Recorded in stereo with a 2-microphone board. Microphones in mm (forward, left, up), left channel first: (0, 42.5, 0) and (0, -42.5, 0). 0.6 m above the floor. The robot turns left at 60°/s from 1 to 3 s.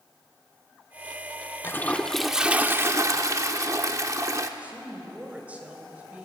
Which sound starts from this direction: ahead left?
A toilet flushing, at 1.6 s.